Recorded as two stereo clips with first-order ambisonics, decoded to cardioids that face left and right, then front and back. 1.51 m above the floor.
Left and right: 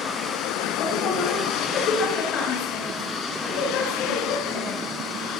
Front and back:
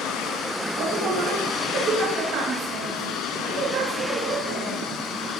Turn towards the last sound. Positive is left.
turn(degrees=135)